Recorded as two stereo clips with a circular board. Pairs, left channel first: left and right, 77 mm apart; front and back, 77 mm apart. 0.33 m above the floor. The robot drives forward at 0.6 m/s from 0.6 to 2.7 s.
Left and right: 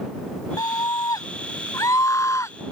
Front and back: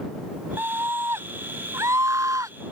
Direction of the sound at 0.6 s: 120° left.